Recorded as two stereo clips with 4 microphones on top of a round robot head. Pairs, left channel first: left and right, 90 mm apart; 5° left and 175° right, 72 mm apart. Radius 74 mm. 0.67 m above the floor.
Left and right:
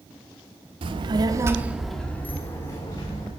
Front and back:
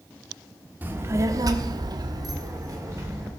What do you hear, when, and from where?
0.8 s a child speaking: 110° right, 1.1 m; by 3.3 s 140° left, 2 m